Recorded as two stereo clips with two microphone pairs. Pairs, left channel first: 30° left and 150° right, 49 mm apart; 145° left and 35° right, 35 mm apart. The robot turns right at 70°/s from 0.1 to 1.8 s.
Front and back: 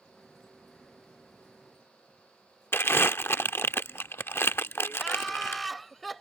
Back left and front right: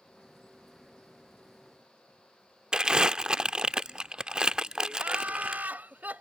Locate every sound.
2.7 s crumpling: 25° left
5.0 s laughter: 55° right